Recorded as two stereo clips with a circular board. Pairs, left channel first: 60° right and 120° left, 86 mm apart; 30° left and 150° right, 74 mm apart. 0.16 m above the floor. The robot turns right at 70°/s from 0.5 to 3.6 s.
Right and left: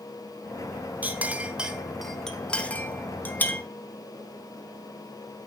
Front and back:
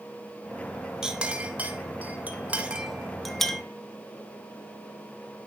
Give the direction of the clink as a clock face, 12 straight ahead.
7 o'clock.